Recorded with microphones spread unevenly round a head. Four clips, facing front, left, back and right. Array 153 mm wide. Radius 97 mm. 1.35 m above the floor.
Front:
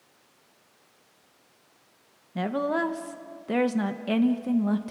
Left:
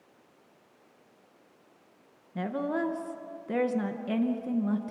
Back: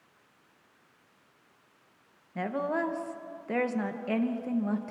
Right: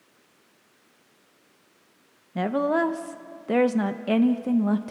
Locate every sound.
2.4 s a woman speaking: 80° right, 1.0 m